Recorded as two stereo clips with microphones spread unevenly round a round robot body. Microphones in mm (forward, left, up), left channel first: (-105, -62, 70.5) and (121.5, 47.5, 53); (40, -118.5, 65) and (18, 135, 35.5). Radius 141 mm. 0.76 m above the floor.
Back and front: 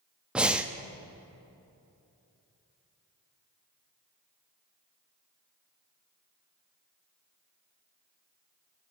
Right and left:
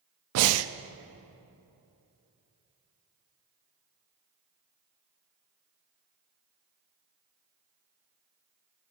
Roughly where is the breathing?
Left.